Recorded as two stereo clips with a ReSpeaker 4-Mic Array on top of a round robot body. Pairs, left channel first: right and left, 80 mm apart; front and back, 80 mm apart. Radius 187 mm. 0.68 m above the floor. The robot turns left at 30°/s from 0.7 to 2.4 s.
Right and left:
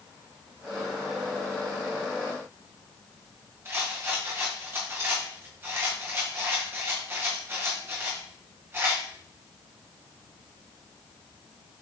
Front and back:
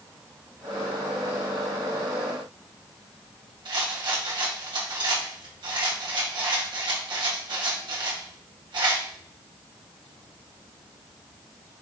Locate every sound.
3.6 s a rattle: 150° left, 1.8 m